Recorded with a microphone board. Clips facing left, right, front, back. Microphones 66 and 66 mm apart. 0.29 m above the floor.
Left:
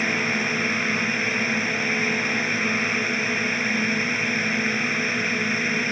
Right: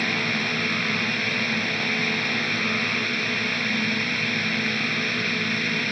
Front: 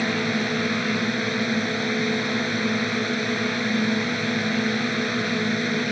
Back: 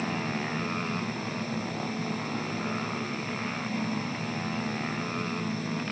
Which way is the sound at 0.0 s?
15° left.